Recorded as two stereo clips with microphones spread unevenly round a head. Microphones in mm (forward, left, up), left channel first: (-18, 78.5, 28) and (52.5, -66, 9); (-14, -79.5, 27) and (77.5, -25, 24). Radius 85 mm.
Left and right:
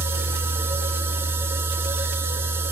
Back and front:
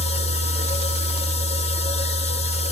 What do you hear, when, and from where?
0.0 s a machine running: 140° right, 0.7 m